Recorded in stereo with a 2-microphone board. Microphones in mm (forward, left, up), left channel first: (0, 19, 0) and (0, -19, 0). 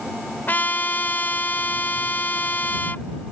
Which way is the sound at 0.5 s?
55° left (ahead or behind).